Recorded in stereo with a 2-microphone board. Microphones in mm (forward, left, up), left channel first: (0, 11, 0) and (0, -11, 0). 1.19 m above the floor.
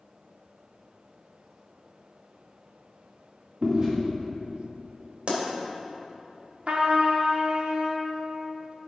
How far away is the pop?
About 2.0 m.